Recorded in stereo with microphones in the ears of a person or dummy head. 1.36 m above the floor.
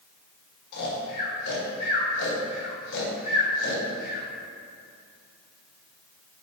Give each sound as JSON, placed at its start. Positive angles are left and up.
{"t": 0.7, "sound": "snoring", "side_deg": 75, "distance_m": 1.7}